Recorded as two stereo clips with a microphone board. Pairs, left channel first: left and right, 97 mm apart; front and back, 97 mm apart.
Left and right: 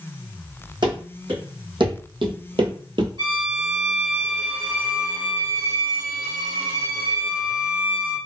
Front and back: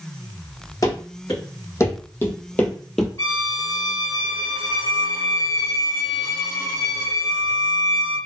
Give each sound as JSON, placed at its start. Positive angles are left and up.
{"t": 0.8, "sound": "running footsteps", "azimuth_deg": -55, "distance_m": 1.7}
{"t": 3.2, "sound": "a violin", "azimuth_deg": -55, "distance_m": 1.7}